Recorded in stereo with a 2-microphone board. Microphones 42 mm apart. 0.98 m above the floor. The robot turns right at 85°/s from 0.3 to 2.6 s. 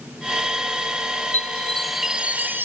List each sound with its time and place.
1.3 s a chime: 130° left; by 2.7 s 120° right